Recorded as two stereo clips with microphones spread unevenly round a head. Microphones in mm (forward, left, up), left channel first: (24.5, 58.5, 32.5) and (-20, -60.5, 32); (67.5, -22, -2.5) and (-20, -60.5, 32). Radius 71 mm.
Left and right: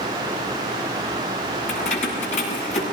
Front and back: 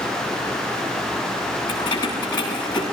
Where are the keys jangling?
100° left, 7.5 m; by 2.8 s 110° left, 7.5 m.